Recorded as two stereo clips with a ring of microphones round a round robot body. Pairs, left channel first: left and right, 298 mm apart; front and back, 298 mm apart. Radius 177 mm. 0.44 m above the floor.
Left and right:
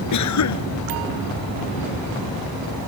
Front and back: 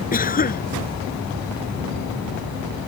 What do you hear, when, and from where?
0.1 s a cough: 60° left